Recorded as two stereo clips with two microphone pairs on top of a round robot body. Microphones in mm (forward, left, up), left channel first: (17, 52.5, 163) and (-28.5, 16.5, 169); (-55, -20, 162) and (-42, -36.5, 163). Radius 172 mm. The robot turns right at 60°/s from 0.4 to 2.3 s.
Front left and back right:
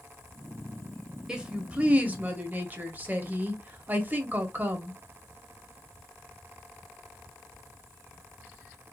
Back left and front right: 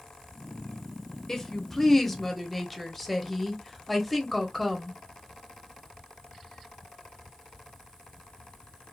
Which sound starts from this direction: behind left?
A woman speaking, at 1.3 s.